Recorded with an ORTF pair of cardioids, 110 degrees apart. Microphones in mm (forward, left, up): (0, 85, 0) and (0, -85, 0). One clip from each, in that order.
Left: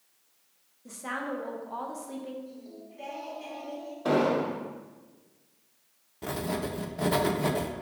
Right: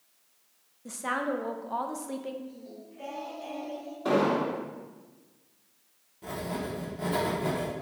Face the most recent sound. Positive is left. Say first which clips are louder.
# left 2 dB
turn(degrees=50)